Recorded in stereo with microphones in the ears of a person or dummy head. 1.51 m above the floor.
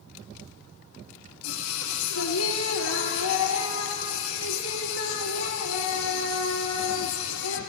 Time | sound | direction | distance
1.4 | singing | 85° left | 2.5 m